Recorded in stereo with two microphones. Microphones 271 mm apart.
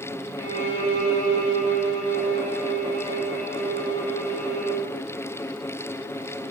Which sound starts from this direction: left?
A violin, at 0.4 s.